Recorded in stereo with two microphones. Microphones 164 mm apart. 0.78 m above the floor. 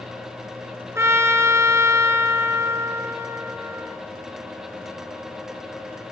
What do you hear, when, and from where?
0.9 s a trumpet: 15° right (ahead or behind), 1.5 m